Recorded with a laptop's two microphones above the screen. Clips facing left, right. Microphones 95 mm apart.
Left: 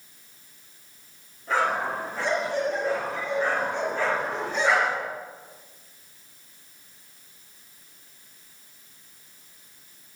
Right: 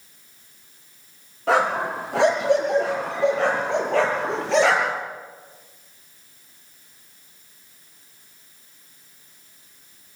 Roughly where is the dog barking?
Right.